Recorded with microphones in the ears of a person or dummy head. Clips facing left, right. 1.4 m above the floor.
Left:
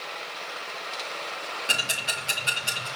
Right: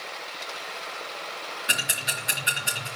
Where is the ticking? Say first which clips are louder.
Left 1 dB; 25° right (ahead or behind), 4 m.